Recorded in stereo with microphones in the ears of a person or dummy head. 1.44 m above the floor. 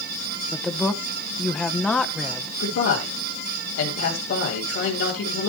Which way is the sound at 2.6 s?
75° left (ahead or behind).